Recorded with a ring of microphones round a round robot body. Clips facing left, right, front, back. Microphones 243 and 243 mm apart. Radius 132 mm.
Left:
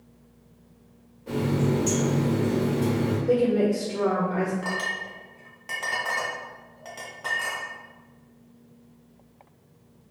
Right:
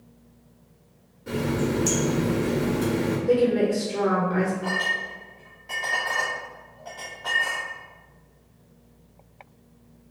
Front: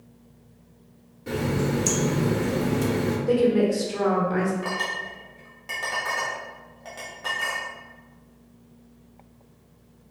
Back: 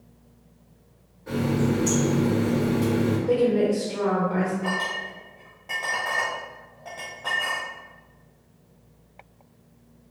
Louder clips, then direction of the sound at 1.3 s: Even, back 2 dB; 30° right.